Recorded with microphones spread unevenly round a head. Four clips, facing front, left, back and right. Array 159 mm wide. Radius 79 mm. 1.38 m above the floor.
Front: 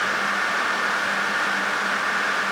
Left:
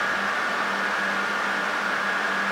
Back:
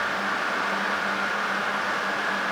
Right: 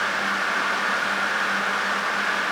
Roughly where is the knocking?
I don't hear knocking.